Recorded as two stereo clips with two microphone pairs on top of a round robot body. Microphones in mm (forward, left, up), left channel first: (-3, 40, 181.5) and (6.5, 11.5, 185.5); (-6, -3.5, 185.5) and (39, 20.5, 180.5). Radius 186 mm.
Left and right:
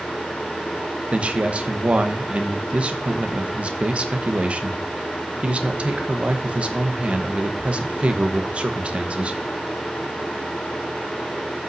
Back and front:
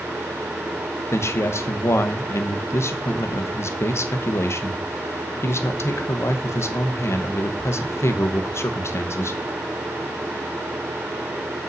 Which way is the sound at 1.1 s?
120° right.